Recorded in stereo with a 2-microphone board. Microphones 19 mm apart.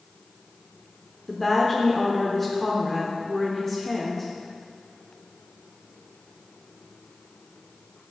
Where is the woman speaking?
10° left (ahead or behind), 0.8 m.